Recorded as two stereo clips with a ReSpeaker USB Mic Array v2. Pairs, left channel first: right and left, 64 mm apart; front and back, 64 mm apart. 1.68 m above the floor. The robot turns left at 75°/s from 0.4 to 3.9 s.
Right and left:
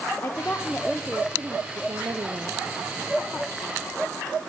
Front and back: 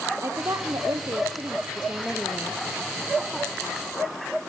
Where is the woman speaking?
140° right, 0.9 m; by 2.6 s 60° left, 0.9 m.